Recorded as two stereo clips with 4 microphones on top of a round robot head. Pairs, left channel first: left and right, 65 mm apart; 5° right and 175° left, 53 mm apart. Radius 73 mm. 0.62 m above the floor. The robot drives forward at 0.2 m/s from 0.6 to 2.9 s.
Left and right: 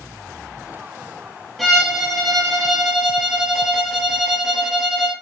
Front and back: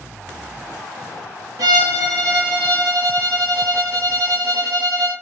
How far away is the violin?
About 0.8 m.